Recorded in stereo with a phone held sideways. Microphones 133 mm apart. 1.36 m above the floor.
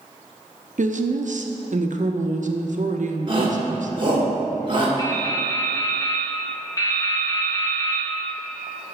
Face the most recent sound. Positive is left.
turn(degrees=25)  # may be behind; listen again after turning